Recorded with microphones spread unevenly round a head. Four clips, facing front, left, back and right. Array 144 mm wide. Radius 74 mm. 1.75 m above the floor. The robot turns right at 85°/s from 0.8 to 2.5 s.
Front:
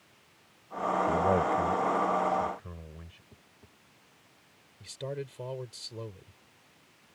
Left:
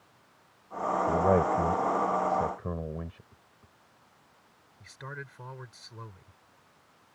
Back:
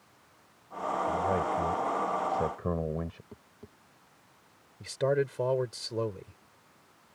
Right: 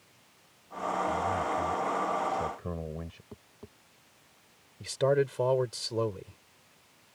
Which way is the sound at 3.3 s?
125° right.